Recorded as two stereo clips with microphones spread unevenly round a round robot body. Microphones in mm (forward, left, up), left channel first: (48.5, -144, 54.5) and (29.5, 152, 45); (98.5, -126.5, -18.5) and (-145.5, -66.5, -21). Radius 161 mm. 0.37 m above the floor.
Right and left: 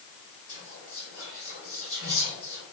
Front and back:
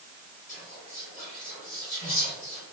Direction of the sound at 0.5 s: 60° right.